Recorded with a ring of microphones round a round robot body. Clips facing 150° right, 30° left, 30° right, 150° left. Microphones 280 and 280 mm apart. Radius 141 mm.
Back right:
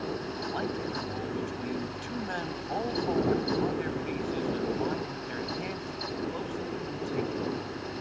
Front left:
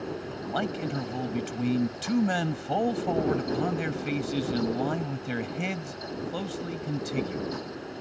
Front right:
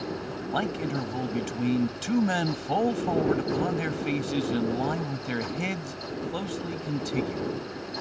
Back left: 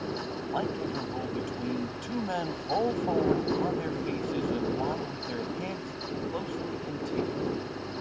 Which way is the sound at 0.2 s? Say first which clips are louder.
Front left 1 dB, front right 1 dB; 15° left.